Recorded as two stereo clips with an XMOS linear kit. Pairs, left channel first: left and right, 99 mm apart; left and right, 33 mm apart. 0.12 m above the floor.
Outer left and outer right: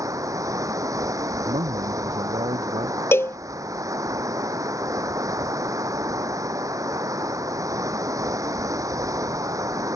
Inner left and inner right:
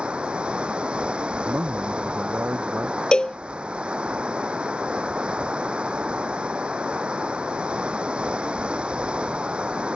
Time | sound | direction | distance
0.0 | running water | 35° right (ahead or behind) | ?
1.4 | a man speaking | 75° right (ahead or behind) | ?
3.1 | a cowbell | 25° left (ahead or behind) | ?